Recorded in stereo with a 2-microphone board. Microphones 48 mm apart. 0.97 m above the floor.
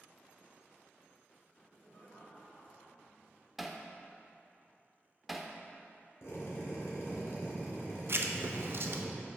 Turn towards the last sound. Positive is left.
turn(degrees=-55)  # may be behind; listen again after turning